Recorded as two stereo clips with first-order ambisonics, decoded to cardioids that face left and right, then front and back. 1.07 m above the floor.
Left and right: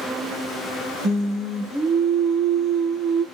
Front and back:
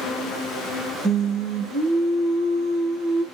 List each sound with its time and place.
1.0 s singing: 140° right, 1.3 m